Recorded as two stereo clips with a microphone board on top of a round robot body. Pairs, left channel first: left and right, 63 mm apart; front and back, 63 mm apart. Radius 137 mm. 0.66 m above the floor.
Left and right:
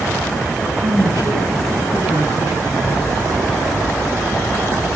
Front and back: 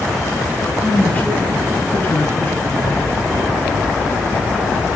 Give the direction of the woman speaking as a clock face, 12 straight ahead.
2 o'clock.